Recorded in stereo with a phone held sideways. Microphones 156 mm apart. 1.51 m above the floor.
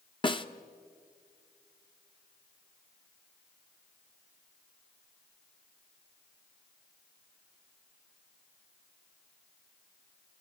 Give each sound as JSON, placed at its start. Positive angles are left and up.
{"t": 0.2, "sound": "a snare drum", "side_deg": 30, "distance_m": 0.9}